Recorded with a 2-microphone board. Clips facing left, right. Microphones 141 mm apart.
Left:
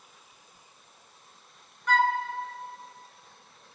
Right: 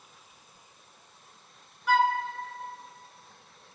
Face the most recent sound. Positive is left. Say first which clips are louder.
# right 1 dB
turn(degrees=-5)  # may be behind; listen again after turning